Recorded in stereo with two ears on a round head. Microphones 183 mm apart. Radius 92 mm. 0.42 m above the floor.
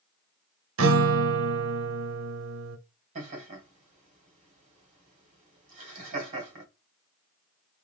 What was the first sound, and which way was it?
A guitar, 75° right (ahead or behind).